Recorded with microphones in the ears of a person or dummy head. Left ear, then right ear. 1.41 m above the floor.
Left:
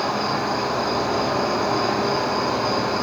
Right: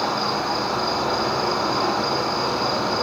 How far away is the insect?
About 0.9 m.